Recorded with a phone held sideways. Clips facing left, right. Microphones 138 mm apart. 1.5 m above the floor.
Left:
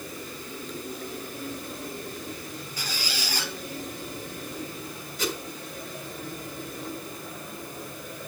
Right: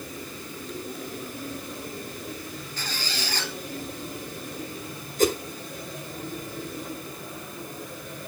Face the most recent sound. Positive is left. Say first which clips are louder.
# right 9 dB
turn(degrees=-50)  # may be behind; listen again after turning